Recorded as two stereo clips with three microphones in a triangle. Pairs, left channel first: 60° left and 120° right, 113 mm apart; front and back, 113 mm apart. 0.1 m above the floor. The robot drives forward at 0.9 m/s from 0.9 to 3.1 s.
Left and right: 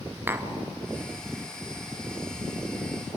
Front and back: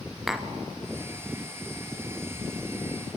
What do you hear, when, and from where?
0.3 s tapping: 95° right, 1.5 m